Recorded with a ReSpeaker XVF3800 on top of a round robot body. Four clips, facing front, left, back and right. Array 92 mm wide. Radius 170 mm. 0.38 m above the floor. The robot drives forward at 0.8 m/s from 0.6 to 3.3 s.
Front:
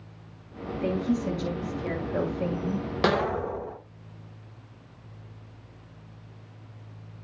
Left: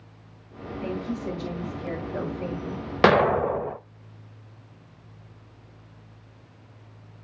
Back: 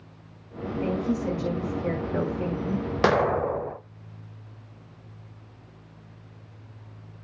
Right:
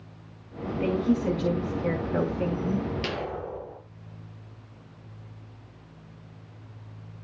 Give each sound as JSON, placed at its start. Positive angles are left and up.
{"t": 0.8, "sound": "a woman speaking", "azimuth_deg": -115, "distance_m": 7.0}
{"t": 3.0, "sound": "an explosion", "azimuth_deg": 105, "distance_m": 0.6}